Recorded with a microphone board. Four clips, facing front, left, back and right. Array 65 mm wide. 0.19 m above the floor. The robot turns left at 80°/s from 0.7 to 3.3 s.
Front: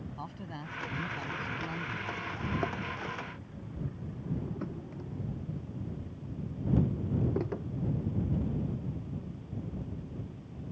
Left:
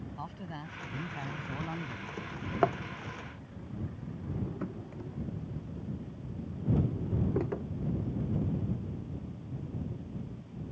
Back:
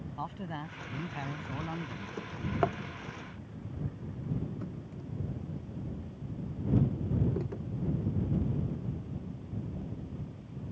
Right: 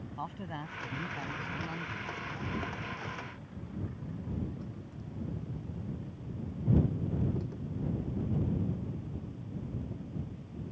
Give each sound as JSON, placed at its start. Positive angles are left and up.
{"t": 0.2, "sound": "a man speaking", "azimuth_deg": -145}
{"t": 2.2, "sound": "a drawer", "azimuth_deg": 145}